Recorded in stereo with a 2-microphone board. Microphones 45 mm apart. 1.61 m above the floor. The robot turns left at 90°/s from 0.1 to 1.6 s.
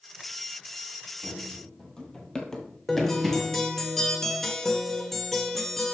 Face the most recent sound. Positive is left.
turn(degrees=10)  # may be behind; listen again after turning